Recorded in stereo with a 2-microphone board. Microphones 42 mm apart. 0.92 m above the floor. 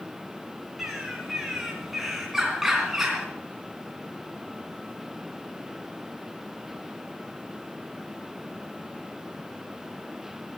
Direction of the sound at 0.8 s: 5° right (ahead or behind).